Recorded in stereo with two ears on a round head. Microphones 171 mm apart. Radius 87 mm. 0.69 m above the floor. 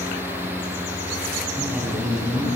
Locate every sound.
1.6 s a man speaking: 5° right (ahead or behind), 5 m